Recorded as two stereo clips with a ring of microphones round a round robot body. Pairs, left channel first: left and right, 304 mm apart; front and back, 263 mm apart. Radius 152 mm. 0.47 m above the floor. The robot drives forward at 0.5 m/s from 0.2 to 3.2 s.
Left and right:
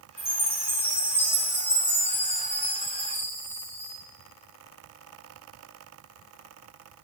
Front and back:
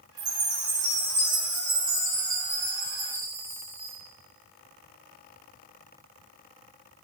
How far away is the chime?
About 5 m.